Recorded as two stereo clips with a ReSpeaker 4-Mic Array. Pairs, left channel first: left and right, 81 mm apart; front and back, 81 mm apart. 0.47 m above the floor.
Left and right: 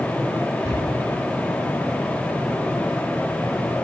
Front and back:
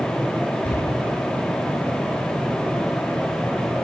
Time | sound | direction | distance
0.6 | a cupboard door | 70° right | 1.5 m